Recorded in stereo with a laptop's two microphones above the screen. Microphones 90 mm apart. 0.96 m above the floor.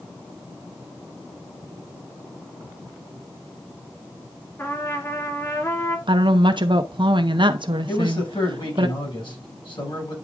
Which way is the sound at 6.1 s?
60° right (ahead or behind).